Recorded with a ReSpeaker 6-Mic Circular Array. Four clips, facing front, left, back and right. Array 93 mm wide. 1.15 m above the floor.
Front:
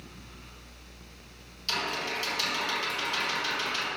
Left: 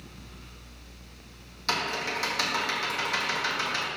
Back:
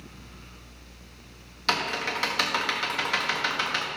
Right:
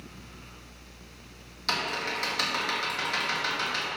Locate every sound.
1.7 s typing on a keyboard: 175° left, 1.9 m